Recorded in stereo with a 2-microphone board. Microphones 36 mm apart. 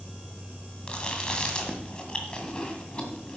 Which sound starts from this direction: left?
Chewing, at 0.9 s.